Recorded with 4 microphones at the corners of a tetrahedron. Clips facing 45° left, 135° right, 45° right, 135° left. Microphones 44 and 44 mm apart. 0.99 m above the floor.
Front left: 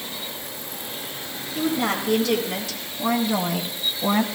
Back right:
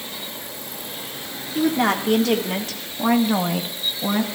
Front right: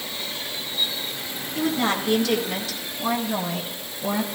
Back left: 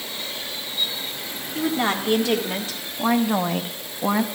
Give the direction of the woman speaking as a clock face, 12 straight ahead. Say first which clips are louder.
Back right 4 dB, even; 5 o'clock.